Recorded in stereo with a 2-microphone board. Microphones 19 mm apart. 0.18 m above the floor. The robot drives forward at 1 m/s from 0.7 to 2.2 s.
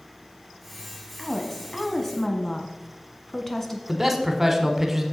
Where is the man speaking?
15° right (ahead or behind), 1.2 m.